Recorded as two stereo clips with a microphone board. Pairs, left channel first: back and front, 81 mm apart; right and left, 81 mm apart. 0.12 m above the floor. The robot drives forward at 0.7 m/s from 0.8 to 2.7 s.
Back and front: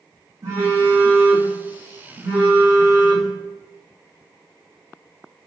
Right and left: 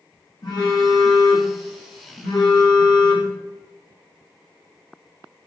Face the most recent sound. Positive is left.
turn(degrees=-75)